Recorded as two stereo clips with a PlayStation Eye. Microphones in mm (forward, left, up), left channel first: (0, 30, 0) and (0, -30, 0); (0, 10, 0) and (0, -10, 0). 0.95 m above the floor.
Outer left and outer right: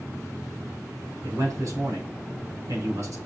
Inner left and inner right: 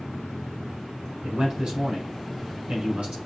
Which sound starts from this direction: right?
A man speaking, at 1.2 s.